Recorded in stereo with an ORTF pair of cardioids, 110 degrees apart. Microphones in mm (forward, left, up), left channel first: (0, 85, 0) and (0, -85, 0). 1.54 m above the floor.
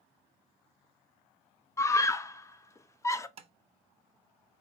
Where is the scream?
15° left, 0.7 m.